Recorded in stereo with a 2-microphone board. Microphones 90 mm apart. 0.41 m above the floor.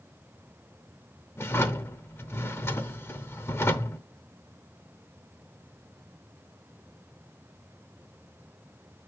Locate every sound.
1.4 s a drawer: 30° left (ahead or behind), 0.7 m